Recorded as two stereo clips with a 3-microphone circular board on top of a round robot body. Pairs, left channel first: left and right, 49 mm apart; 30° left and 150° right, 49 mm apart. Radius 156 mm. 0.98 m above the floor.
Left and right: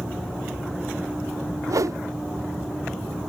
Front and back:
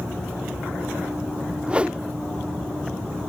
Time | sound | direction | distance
1.7 | a whoosh | 80° right | ?